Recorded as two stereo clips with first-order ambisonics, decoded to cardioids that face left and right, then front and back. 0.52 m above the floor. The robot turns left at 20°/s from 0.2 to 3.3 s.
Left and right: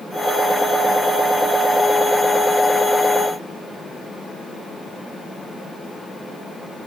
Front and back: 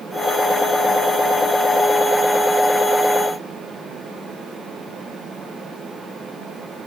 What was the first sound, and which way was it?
Only background noise.